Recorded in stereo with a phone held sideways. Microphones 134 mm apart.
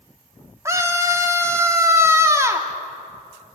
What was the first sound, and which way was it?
A scream, 20° right (ahead or behind).